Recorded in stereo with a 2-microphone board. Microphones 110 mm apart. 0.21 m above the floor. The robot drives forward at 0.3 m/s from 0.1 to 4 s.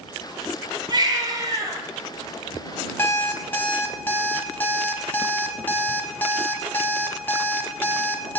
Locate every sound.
0.9 s a baby crying: 40° right (ahead or behind), 1.8 m; by 1.8 s 35° right (ahead or behind), 2.0 m
3.0 s an alarm clock: 20° left (ahead or behind), 0.8 m; by 8.4 s 15° left (ahead or behind), 0.9 m